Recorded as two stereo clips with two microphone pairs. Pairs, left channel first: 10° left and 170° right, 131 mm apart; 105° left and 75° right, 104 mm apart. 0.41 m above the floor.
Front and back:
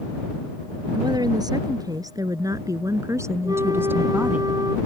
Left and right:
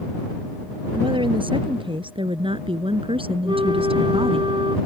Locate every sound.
0.9 s a woman speaking: 110° right; by 4.4 s 90° right
3.4 s a flute: 110° right